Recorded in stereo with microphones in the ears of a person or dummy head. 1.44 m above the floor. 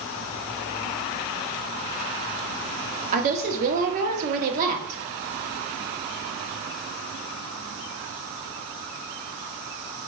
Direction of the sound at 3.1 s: 40° right (ahead or behind).